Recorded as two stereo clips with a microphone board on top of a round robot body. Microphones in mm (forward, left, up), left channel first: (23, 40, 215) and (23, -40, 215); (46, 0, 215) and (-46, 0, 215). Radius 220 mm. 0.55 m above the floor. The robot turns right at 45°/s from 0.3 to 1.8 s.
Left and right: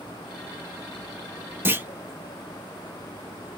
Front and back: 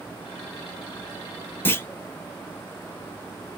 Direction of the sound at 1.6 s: 50° right.